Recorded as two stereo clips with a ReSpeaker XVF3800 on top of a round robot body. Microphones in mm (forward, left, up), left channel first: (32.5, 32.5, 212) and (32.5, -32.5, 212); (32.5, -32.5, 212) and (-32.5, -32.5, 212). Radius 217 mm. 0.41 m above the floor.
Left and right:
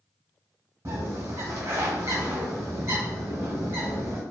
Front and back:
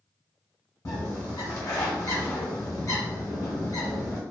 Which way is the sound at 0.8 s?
40° right.